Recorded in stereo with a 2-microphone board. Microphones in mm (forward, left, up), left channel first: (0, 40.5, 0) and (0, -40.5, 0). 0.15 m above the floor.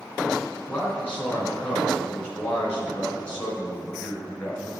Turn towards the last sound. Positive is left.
turn(degrees=15)  # may be behind; listen again after turning